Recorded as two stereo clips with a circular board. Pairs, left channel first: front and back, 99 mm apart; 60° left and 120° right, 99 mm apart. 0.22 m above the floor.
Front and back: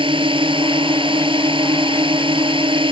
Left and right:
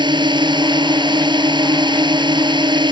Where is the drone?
155° right.